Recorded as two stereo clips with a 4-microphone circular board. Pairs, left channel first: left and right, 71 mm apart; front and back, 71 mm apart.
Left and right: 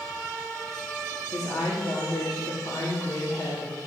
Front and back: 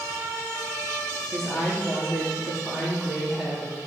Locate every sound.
1.3 s a woman speaking: 95° left, 3 m